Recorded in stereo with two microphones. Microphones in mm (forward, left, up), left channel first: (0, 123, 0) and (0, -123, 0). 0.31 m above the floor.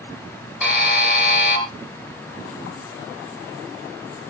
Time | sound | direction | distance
0.6 | a buzzer | 5° right (ahead or behind) | 3.5 m